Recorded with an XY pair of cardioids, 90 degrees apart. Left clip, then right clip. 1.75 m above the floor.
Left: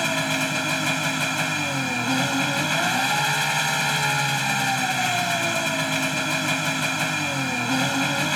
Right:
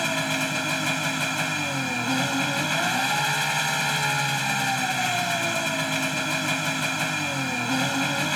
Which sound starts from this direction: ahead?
An engine running, at 0.0 s.